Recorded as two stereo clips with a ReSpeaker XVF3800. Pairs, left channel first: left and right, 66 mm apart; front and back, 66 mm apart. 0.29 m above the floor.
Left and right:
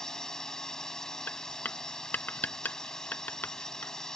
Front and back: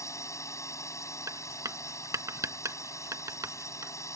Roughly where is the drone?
Ahead.